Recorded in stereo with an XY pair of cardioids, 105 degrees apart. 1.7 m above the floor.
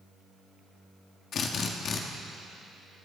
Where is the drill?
60° left, 3 m.